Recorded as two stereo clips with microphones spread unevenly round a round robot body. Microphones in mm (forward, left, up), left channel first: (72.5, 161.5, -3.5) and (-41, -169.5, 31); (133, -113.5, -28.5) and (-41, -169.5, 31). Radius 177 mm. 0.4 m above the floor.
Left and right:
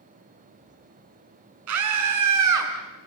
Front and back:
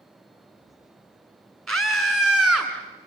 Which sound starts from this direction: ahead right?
A scream, at 1.7 s.